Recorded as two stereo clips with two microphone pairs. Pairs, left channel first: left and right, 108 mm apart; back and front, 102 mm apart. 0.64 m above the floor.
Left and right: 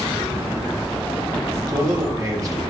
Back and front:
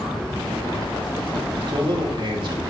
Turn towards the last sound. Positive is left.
turn(degrees=-35)